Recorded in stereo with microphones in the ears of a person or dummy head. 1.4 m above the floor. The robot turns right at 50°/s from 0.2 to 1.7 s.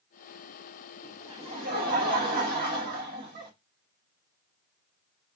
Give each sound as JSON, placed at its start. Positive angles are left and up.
{"t": 1.0, "sound": "laughter", "azimuth_deg": -160, "distance_m": 0.9}